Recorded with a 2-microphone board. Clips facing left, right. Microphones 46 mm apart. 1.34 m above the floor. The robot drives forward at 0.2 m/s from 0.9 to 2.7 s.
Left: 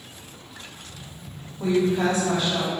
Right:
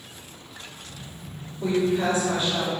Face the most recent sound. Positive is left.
turn(degrees=80)